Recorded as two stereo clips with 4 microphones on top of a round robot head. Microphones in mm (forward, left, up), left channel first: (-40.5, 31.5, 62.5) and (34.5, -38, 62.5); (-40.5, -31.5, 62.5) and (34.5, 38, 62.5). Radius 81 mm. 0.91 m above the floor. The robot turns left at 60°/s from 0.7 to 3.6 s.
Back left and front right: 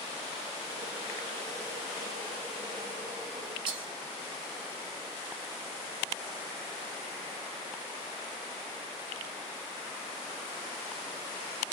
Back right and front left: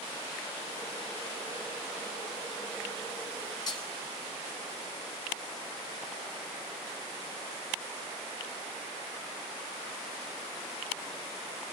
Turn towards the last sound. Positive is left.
turn(degrees=-85)